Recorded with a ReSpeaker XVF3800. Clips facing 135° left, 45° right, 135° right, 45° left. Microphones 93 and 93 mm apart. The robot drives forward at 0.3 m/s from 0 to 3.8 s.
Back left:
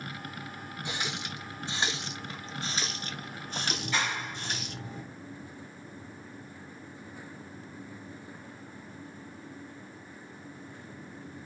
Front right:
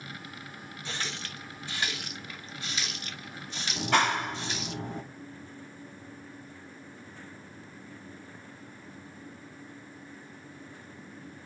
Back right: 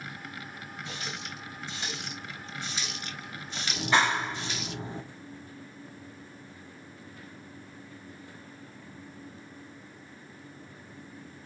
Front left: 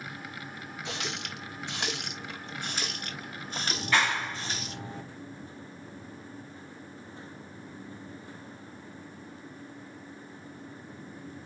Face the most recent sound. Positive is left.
turn(degrees=-65)